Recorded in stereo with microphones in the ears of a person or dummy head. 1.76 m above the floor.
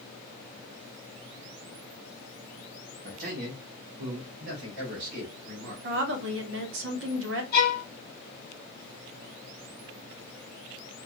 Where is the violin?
55° left (ahead or behind), 0.9 m.